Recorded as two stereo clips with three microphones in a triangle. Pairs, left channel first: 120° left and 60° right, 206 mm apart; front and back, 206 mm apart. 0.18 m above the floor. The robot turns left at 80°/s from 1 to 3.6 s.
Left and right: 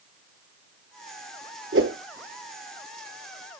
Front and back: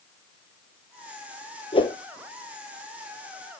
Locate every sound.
1.7 s a whoosh: 55° right, 0.8 m; by 2.0 s 75° right, 0.8 m